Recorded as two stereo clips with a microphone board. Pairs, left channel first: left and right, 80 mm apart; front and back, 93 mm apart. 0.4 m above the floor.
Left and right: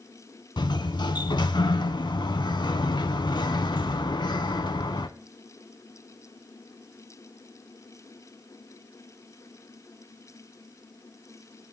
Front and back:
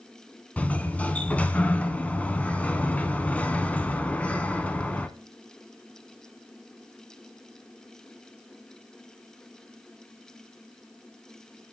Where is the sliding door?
75° left, 0.6 m.